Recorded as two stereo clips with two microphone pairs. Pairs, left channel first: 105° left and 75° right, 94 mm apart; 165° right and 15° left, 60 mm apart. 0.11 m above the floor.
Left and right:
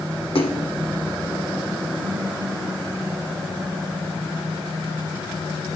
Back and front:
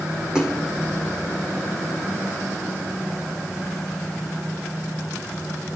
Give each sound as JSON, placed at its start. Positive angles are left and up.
{"t": 0.3, "sound": "a splash", "azimuth_deg": 95, "distance_m": 2.0}